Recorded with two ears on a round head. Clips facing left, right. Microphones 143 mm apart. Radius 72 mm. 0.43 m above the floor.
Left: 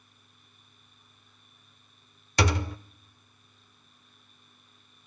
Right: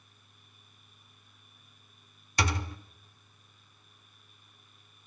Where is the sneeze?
I don't hear a sneeze.